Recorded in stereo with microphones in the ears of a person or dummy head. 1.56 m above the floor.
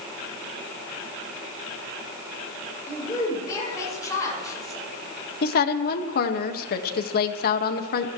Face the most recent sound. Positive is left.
turn(degrees=60)  # may be behind; listen again after turning